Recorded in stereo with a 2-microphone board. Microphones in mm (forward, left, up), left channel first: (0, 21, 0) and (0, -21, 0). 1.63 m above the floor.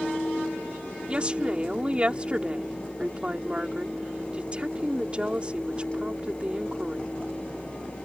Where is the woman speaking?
30° right (ahead or behind).